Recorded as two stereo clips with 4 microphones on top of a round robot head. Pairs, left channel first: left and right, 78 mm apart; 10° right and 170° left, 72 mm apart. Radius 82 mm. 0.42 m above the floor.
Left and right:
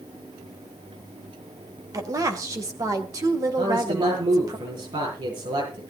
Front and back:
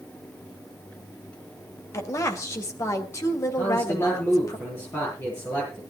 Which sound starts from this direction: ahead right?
A woman speaking, at 1.9 s.